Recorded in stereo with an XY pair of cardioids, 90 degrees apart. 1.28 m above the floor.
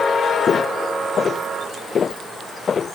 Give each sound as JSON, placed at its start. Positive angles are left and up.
{"t": 0.5, "sound": "footsteps", "azimuth_deg": 50}